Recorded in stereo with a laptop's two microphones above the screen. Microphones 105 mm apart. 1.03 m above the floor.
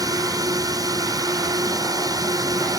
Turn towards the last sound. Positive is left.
turn(degrees=-35)  # may be behind; listen again after turning